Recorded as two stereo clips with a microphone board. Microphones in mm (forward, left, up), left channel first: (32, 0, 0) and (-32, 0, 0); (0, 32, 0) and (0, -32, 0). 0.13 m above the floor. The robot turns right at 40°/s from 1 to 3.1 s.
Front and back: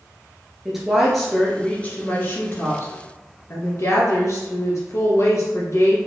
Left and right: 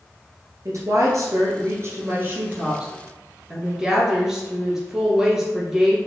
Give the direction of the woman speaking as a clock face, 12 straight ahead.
3 o'clock.